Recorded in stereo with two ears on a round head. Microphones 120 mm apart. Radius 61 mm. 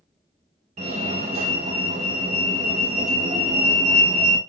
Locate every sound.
0.8 s a fire alarm: 55° right (ahead or behind), 1.0 m